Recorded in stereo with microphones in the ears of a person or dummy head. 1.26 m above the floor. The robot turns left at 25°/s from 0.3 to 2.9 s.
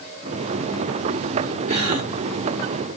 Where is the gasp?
30° right (ahead or behind), 2.0 m; by 2.1 s 40° right (ahead or behind), 2.0 m.